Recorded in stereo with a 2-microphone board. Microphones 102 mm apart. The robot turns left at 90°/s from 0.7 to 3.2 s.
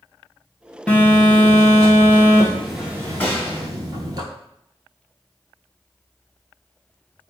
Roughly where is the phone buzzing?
Behind.